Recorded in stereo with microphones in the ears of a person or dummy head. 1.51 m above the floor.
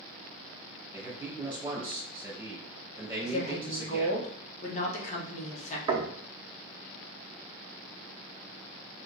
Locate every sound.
0.9 s a man speaking: 10° right (ahead or behind), 1.8 m
3.2 s a woman speaking: 45° left (ahead or behind), 1.2 m
5.9 s knocking: 30° right (ahead or behind), 0.7 m